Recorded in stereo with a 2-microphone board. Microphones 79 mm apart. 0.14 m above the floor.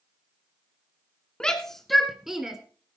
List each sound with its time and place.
1.4 s a shout: 10° left (ahead or behind), 1.2 m; by 2.6 s 10° right (ahead or behind), 1.5 m